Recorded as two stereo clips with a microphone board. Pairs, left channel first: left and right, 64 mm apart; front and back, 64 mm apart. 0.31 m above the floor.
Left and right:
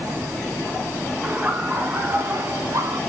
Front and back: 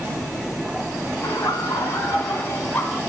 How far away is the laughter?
About 3 m.